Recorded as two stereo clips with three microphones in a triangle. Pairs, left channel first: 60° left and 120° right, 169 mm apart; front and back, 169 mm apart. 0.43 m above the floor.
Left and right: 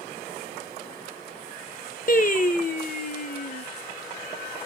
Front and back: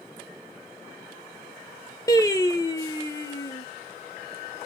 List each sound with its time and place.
2.1 s singing: 65° left, 0.7 m